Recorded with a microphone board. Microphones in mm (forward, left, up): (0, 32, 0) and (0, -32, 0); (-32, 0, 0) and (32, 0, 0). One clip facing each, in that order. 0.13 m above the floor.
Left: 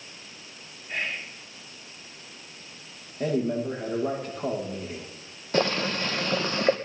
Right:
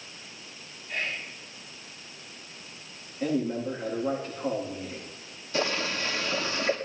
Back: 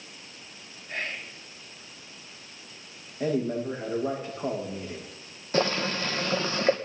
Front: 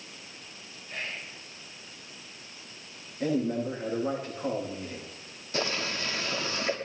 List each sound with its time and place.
0.9 s whispering: 145° left, 3 m
3.2 s a man speaking: 110° left, 9 m
5.5 s boiling: 130° left, 2.5 m